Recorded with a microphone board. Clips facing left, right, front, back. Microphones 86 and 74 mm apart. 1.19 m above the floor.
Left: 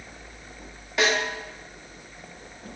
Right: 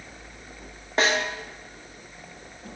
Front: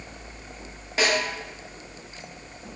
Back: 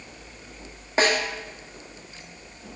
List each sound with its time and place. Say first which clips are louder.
1.0 s a snare drum: even, back 2 dB; 135° right, 0.6 m